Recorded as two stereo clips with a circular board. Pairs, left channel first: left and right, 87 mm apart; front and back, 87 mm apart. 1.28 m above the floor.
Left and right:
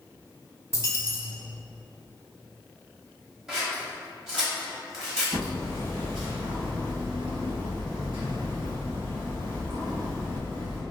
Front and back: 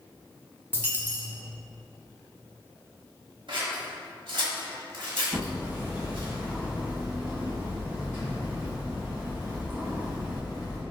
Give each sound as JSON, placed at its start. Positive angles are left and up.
{"t": 0.7, "sound": "a dropped coin", "azimuth_deg": 120, "distance_m": 0.9}
{"t": 3.5, "sound": "scissors", "azimuth_deg": -170, "distance_m": 1.5}
{"t": 5.3, "sound": "hammering", "azimuth_deg": -110, "distance_m": 1.6}